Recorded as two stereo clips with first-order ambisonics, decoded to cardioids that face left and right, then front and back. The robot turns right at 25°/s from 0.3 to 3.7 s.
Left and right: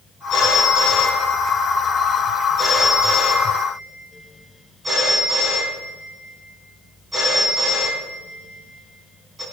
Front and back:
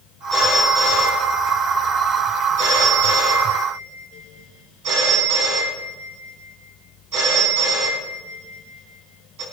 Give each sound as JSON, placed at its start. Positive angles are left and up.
{"t": 0.3, "sound": "a phone ringing", "azimuth_deg": 110, "distance_m": 4.0}